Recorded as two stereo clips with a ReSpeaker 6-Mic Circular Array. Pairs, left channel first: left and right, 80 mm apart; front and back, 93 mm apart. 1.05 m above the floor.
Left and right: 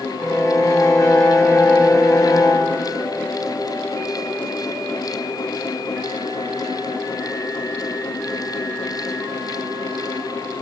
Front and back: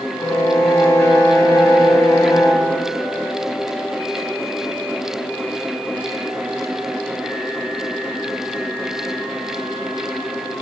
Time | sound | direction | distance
0.2 | a violin | 50° left | 1.4 m